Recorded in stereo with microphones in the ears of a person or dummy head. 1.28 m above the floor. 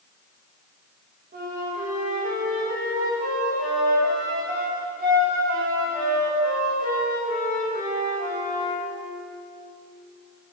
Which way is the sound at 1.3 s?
40° right (ahead or behind).